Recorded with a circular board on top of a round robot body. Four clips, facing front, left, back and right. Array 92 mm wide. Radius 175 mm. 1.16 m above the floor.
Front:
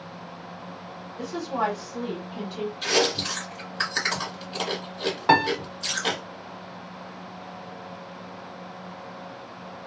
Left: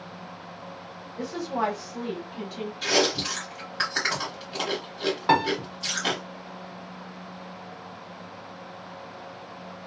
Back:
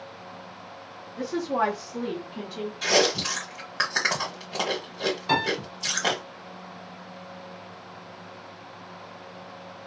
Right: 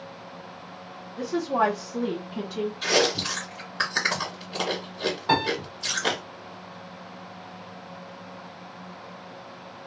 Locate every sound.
1.2 s a woman speaking: 135° right, 1.0 m; by 2.7 s 90° right, 1.2 m
2.8 s chewing: straight behind, 1.2 m
5.3 s a piano: 25° left, 1.2 m